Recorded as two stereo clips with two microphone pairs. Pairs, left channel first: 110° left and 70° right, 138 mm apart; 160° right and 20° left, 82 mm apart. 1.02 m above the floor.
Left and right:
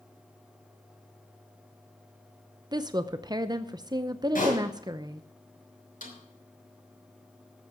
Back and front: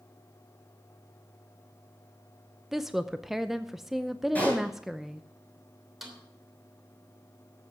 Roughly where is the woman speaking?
Right.